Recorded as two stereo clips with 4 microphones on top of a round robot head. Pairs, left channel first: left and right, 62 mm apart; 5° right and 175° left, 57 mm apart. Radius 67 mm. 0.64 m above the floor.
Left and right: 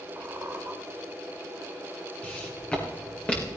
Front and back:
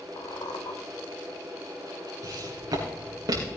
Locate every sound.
0.2 s a squeak: 20° right, 1.4 m
2.2 s footsteps: 160° left, 4.5 m